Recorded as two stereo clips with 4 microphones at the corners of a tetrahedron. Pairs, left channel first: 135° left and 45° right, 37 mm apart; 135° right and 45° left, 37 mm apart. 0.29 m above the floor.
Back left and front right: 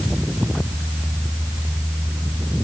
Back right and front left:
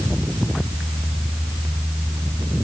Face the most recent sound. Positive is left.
No sound to turn to.